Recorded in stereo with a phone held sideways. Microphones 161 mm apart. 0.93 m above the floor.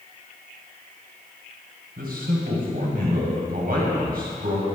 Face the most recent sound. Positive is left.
turn(degrees=-70)  # may be behind; listen again after turning